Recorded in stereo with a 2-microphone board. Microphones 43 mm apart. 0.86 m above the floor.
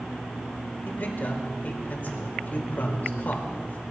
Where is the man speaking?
45° left (ahead or behind), 2.5 m.